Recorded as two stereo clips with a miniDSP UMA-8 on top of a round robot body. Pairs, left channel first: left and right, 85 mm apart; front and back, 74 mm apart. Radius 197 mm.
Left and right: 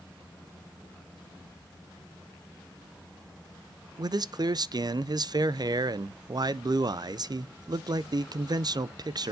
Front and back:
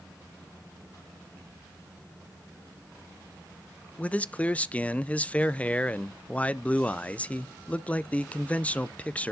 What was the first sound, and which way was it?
A man speaking, 70° right.